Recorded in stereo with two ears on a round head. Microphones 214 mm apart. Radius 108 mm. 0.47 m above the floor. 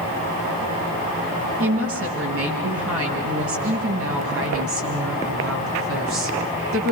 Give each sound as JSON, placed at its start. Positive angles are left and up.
{"t": 1.6, "sound": "a woman speaking", "side_deg": -65, "distance_m": 9.5}